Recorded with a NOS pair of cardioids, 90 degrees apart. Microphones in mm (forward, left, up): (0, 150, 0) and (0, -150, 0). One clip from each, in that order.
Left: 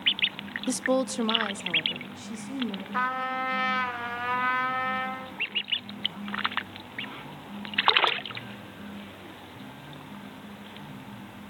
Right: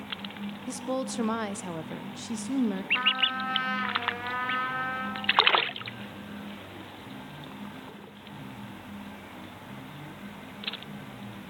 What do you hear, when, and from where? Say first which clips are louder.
0.7 s a woman speaking: left 6 dB; 50° left, 1.0 m; by 2.8 s 35° right, 2.5 m
2.9 s a trumpet: right 2 dB; 35° left, 2.5 m